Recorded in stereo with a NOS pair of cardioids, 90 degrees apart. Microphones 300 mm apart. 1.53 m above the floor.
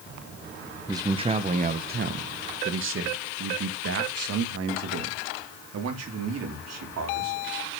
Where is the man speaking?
10° right, 1.0 m; by 7.4 s 60° right, 4 m.